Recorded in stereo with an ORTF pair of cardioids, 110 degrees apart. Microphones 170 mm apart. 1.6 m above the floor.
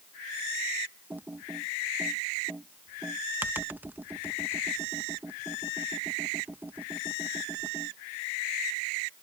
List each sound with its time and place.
1.1 s typing on a keyboard: 10° right